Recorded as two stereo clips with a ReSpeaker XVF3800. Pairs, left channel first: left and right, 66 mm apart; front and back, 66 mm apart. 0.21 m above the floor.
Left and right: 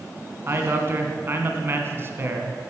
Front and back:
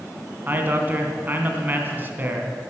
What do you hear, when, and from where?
0.5 s a man speaking: 130° right, 2 m